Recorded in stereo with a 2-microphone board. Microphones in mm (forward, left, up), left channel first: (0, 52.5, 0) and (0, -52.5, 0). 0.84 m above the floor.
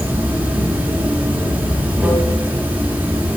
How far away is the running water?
About 1.2 m.